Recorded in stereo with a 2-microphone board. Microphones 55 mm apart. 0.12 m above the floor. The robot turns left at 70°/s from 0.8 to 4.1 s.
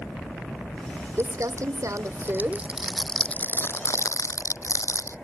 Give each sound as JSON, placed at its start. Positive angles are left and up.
{"t": 1.2, "sound": "crumpling", "azimuth_deg": -55}